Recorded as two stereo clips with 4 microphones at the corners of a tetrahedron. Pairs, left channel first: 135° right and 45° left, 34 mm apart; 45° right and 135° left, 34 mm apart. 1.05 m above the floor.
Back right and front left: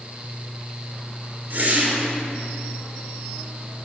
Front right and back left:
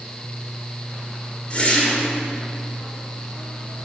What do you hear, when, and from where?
1.5 s a whoosh: 10° left, 3 m